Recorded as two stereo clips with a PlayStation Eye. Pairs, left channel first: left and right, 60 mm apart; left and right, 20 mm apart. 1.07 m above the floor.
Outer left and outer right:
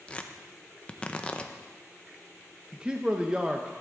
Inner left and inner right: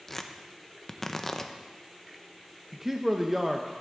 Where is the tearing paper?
20° left (ahead or behind), 0.6 m.